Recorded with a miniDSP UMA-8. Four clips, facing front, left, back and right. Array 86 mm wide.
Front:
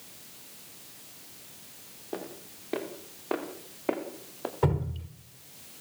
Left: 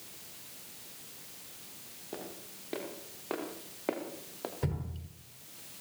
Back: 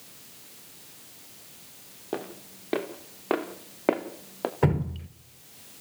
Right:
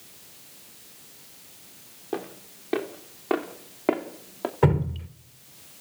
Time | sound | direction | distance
2.1 | footsteps | 145° right | 5 m
4.6 | dripping | 120° right | 1.4 m